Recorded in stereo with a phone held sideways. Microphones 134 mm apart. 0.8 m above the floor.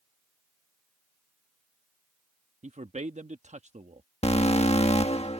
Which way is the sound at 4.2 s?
50° left (ahead or behind).